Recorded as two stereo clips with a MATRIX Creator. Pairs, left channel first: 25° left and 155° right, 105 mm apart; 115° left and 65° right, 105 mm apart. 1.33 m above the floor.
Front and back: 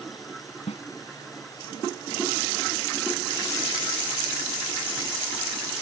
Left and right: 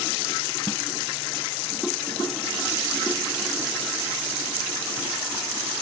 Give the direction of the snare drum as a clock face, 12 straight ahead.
11 o'clock.